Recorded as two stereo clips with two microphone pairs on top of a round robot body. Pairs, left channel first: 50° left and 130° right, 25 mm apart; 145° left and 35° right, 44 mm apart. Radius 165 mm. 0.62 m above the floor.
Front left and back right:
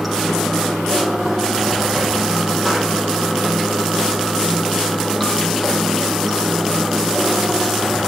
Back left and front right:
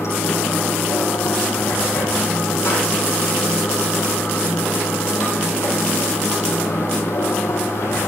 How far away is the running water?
About 7 m.